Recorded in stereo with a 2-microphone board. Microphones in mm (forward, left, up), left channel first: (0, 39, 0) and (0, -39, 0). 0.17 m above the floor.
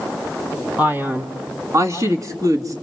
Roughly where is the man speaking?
Right.